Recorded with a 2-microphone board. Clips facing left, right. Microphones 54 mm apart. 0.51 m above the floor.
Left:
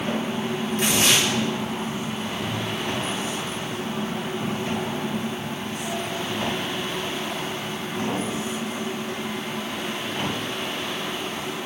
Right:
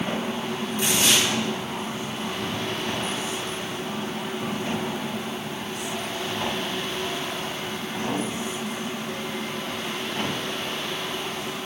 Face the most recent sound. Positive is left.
turn(degrees=60)  # may be behind; listen again after turning